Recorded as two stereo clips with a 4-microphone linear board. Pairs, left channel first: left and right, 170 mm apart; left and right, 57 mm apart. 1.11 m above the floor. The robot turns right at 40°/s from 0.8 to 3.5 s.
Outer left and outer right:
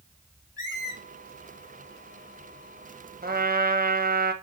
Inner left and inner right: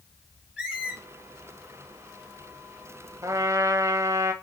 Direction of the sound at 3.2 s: 65° right (ahead or behind).